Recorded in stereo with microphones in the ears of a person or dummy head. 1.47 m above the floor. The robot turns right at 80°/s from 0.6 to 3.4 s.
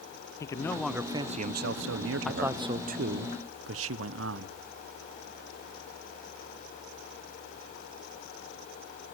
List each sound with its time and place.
0.4 s a man speaking: 160° left, 0.5 m; by 2.7 s 30° right, 0.5 m
2.2 s a man speaking: straight behind, 0.7 m; by 4.6 s 90° right, 0.7 m